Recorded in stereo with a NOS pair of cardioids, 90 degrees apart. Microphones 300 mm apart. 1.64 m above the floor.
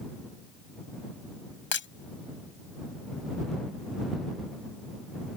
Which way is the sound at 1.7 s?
45° left.